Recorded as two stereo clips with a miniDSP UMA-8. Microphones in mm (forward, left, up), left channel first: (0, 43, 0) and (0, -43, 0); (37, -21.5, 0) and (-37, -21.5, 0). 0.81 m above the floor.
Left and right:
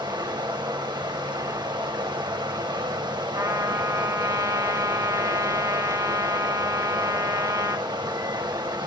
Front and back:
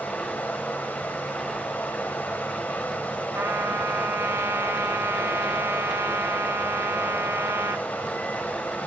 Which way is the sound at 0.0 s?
65° right.